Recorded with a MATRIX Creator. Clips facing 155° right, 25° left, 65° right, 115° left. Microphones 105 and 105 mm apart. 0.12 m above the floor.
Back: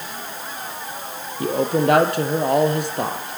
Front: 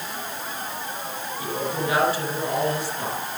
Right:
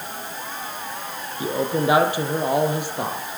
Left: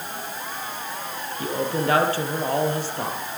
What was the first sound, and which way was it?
A man speaking, 140° right.